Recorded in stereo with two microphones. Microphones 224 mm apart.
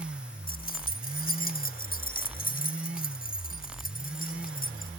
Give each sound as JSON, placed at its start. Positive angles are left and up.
{"t": 0.5, "sound": "keys jangling", "side_deg": 40}